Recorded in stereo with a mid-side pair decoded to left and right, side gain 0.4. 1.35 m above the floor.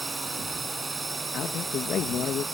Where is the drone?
35° right.